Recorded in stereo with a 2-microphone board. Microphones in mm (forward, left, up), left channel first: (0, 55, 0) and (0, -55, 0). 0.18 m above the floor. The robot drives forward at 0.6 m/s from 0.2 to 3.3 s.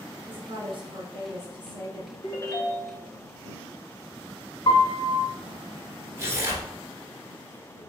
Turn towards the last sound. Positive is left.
turn(degrees=-25)  # may be behind; listen again after turning